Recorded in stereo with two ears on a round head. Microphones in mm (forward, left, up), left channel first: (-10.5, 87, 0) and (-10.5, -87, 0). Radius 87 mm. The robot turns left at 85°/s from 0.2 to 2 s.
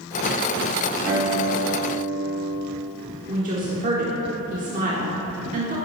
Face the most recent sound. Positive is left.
turn(degrees=-40)  # may be behind; listen again after turning